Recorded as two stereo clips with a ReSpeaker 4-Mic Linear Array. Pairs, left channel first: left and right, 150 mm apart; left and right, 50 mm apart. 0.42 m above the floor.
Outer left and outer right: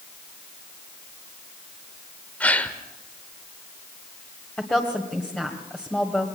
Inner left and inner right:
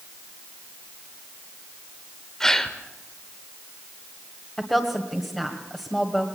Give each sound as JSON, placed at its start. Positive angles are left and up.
{"t": 2.4, "sound": "a gasp", "side_deg": 10, "distance_m": 1.2}
{"t": 4.6, "sound": "a woman speaking", "side_deg": 10, "distance_m": 1.7}